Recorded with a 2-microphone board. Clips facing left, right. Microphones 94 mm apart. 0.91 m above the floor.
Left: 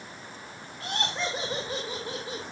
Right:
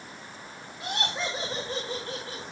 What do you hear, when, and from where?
0.8 s laughter: 15° right (ahead or behind), 1.7 m; by 2.4 s 25° left (ahead or behind), 2.0 m